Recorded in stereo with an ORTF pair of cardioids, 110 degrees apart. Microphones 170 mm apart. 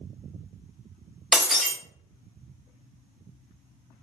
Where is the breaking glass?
Straight ahead, 0.6 m.